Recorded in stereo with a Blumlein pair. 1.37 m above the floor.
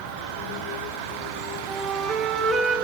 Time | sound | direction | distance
1.7 | a flute | 20° right | 2.5 m